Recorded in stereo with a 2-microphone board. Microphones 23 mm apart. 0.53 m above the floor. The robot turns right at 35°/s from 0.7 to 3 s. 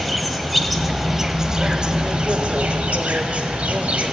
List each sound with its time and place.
0.0 s an insect: straight behind, 0.7 m; by 4.1 s 100° right, 0.7 m